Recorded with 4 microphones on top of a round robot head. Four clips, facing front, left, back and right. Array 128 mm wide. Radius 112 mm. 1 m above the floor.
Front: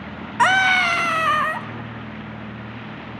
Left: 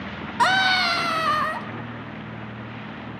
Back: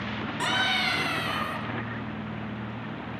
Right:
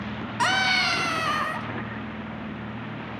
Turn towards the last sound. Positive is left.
turn(degrees=25)